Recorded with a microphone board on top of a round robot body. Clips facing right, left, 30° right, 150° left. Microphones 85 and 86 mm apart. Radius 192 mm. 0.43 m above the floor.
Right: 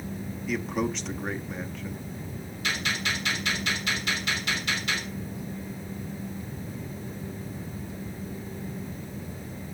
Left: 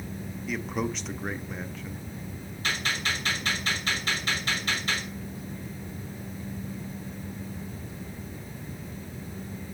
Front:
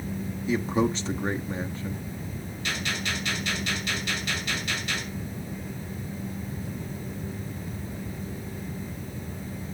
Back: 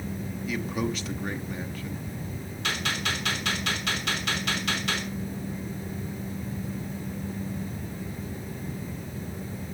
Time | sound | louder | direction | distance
0.5 | a man speaking | right 2 dB, front 5 dB | straight ahead | 1.0 m
2.6 | a gunshot | even, back 2 dB | 140° left | 5.5 m